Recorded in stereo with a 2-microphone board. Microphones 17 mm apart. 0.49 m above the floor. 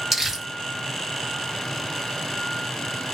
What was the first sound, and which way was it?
Crumpling, 10° right (ahead or behind).